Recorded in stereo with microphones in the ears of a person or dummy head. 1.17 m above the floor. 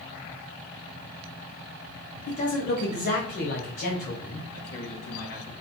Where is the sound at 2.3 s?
45° left (ahead or behind), 1.0 m.